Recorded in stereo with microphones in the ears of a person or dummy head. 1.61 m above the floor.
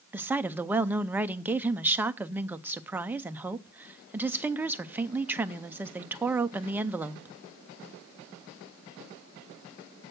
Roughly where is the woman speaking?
Centre.